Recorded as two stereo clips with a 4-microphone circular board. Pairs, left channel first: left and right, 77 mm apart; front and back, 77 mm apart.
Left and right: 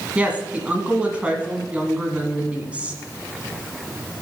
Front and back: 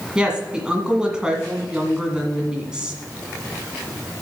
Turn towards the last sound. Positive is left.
turn(degrees=-125)